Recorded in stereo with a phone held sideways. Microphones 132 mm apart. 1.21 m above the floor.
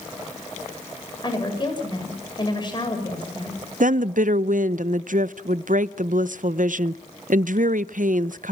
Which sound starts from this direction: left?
A woman speaking, at 1.2 s.